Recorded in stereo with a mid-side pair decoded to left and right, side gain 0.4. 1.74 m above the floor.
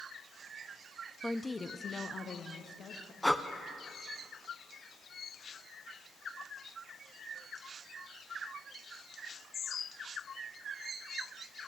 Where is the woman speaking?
Straight ahead, 0.8 m; by 3.1 s 65° left, 3 m.